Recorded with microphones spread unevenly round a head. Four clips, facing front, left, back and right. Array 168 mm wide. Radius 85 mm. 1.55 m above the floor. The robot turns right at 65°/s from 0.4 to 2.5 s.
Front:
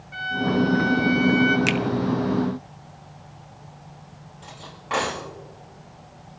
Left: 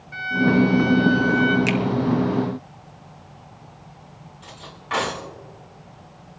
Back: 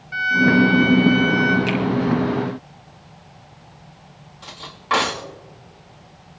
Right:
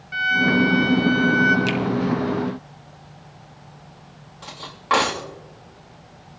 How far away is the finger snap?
About 0.8 m.